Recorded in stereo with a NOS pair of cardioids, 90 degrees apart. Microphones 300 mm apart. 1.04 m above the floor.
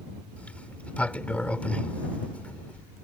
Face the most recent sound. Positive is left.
turn(degrees=5)